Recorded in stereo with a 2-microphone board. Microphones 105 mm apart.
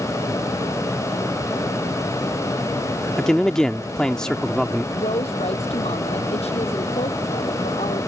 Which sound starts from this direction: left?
A woman speaking, at 4.9 s.